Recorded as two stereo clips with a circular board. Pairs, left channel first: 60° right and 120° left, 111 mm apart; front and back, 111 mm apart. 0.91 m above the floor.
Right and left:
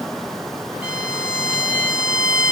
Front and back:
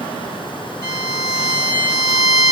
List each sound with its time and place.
0.8 s a violin: 40° left, 1.2 m